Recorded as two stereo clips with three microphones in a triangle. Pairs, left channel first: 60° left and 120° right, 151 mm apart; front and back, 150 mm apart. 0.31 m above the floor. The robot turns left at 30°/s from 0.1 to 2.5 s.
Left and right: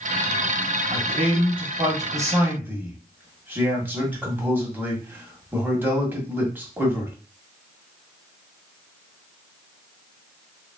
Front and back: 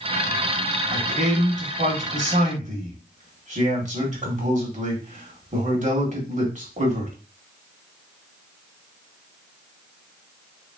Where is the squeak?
I don't hear a squeak.